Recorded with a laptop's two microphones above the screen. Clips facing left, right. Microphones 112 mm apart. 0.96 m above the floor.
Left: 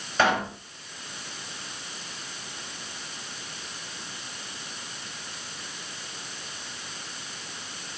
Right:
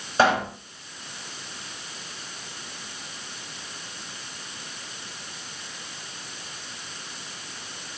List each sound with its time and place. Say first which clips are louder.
0.2 s a pop: right 3 dB; 30° right (ahead or behind), 4 m